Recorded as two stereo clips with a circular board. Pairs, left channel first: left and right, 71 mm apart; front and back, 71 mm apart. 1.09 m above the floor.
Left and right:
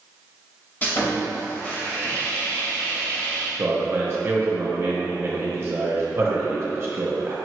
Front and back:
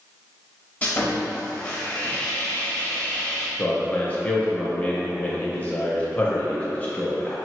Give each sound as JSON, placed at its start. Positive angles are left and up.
{"t": 0.8, "sound": "sawing", "azimuth_deg": 45, "distance_m": 1.0}
{"t": 3.6, "sound": "a man speaking", "azimuth_deg": -60, "distance_m": 0.8}